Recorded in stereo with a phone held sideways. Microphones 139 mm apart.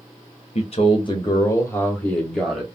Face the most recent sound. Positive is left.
turn(degrees=0)  # may be behind; listen again after turning